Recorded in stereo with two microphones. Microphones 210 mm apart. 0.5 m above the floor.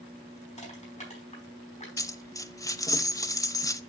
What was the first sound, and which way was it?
Crushing, 35° left (ahead or behind).